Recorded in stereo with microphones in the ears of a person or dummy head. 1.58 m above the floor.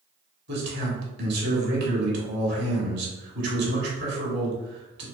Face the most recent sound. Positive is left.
turn(degrees=-60)  # may be behind; listen again after turning